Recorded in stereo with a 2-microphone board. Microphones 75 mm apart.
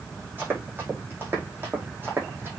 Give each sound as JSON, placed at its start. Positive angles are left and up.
{"t": 0.4, "sound": "running footsteps", "side_deg": -25, "distance_m": 5.5}